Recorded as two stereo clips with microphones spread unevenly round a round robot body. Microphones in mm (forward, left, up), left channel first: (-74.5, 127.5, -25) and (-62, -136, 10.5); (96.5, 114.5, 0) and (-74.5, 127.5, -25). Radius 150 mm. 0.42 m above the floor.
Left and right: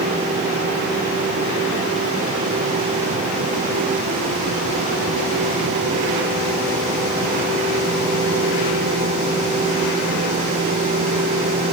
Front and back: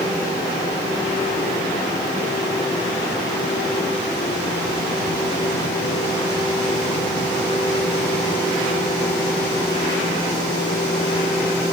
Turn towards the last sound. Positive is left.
No sound to turn to.